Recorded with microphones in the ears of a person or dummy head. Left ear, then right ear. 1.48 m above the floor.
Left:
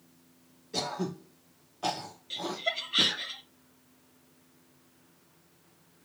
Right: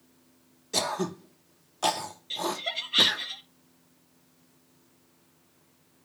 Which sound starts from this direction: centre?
Laughter, at 2.3 s.